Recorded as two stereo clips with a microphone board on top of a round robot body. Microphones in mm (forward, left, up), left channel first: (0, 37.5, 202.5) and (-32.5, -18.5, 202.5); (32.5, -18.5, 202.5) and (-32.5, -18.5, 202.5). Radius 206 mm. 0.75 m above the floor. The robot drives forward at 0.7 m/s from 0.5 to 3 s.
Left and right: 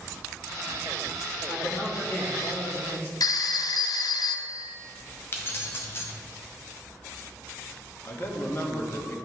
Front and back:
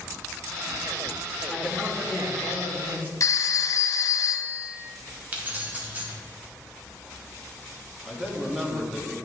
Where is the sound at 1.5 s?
90° left, 2.0 m; by 3.1 s 120° left, 2 m.